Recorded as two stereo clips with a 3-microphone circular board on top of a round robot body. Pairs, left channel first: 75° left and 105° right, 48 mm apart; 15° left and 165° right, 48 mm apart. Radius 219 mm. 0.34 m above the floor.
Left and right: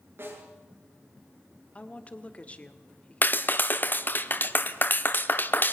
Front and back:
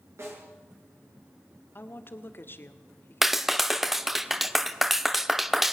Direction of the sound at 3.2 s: 110° left.